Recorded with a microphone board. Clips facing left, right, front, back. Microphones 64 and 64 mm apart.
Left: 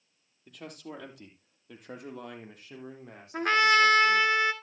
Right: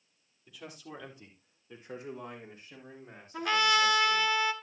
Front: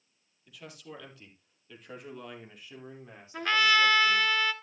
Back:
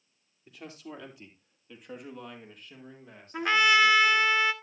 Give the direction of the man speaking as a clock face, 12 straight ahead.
8 o'clock.